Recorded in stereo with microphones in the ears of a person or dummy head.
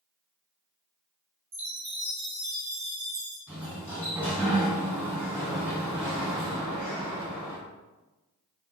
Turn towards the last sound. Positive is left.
turn(degrees=-20)  # may be behind; listen again after turning